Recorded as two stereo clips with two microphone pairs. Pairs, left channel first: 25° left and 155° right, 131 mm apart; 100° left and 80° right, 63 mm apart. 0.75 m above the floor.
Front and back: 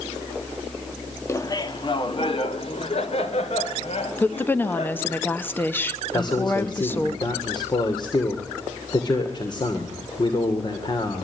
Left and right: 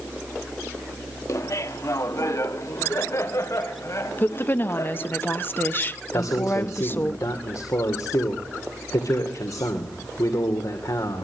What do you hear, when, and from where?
1.3 s laughter: 90° left, 1.2 m; by 5.2 s 60° left, 6 m
4.2 s a woman speaking: 90° left, 1.0 m
6.1 s a man speaking: 80° left, 2.5 m